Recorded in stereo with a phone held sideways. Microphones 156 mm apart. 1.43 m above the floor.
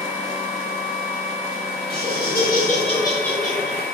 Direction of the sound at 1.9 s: 80° left.